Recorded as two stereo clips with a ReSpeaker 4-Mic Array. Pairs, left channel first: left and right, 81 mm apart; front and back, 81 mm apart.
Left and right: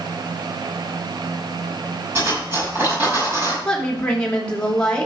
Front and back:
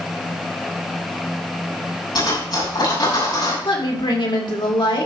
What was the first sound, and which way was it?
Cutlery clinking, 25° right.